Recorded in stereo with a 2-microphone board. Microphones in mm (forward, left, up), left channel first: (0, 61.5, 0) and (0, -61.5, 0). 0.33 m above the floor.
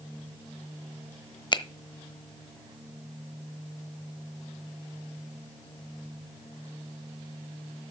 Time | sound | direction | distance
1.5 | a finger snap | 40° left (ahead or behind) | 1.0 m